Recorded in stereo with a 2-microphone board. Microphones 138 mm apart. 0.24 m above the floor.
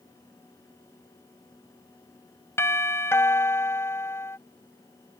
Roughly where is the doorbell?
Centre.